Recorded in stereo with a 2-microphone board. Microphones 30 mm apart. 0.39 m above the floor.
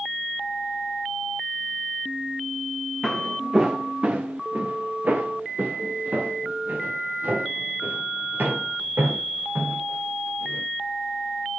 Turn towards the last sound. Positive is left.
turn(degrees=-85)